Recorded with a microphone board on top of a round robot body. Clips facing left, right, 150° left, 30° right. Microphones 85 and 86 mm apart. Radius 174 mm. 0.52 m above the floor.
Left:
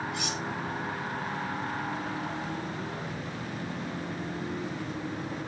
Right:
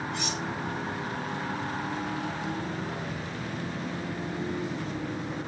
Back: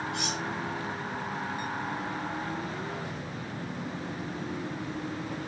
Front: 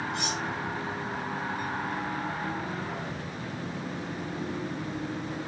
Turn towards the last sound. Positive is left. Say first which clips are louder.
# right 1 dB, front 1 dB
turn(degrees=170)